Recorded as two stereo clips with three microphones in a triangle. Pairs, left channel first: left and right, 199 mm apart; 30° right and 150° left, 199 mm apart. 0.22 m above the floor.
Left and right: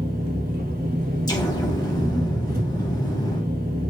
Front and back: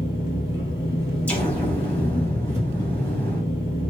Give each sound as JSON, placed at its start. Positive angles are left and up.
{"t": 0.0, "sound": "an engine running", "azimuth_deg": -50, "distance_m": 2.0}
{"t": 1.3, "sound": "an explosion", "azimuth_deg": 45, "distance_m": 1.1}